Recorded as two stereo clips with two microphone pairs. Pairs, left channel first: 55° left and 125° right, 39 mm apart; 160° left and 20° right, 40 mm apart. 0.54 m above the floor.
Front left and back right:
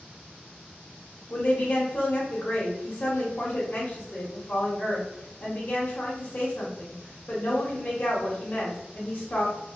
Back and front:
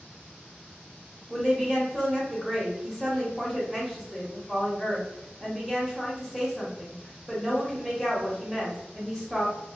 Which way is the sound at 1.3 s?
50° left.